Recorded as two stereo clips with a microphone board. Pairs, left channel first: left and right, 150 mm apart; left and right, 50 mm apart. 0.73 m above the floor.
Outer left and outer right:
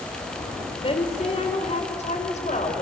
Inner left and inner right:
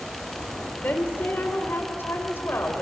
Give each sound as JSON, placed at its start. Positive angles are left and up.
{"t": 0.8, "sound": "a woman speaking", "side_deg": 40, "distance_m": 3.0}